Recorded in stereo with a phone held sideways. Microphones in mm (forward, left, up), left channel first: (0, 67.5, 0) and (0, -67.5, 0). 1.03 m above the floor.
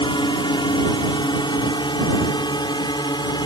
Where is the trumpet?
I don't hear a trumpet.